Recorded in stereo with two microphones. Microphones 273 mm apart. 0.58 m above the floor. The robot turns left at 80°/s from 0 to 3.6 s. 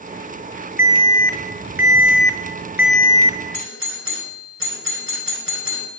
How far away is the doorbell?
About 4.5 m.